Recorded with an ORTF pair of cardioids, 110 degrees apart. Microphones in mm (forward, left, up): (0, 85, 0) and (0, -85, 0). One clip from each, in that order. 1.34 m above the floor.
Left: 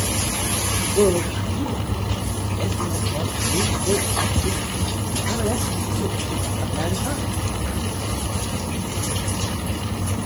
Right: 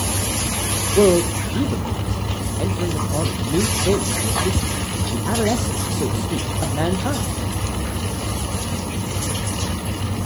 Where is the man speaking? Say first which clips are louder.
Right 4 dB; 25° right, 1.1 m.